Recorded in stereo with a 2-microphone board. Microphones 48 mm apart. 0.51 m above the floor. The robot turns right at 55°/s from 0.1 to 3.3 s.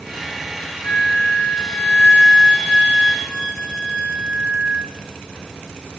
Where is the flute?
70° left, 1.0 m; by 4.9 s 155° right, 1.0 m.